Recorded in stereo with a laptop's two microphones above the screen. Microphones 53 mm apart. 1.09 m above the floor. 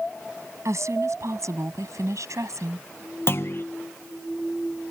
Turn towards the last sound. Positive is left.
turn(degrees=50)  # may be behind; listen again after turning